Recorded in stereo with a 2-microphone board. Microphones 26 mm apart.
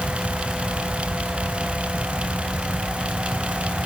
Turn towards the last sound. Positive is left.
No sound to turn to.